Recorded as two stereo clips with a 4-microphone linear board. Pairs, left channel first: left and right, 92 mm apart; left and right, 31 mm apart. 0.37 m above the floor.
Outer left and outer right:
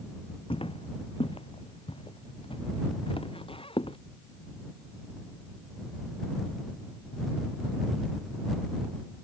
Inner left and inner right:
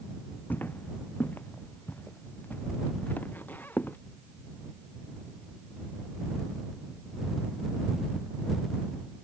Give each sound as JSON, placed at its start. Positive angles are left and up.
{"t": 0.5, "sound": "footsteps", "side_deg": 80}